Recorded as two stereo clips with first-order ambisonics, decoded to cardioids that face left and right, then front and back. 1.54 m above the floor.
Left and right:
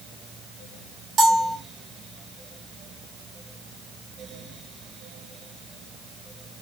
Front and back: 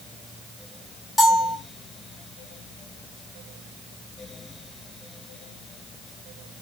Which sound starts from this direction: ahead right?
A bell, at 1.2 s.